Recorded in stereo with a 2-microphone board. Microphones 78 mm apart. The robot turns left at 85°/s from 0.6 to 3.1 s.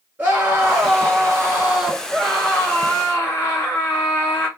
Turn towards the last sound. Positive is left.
turn(degrees=100)